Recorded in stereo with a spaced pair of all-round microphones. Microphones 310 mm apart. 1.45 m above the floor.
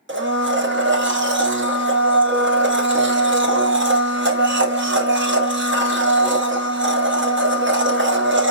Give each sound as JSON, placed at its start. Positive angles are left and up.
{"t": 0.1, "sound": "a blender", "side_deg": -40, "distance_m": 1.0}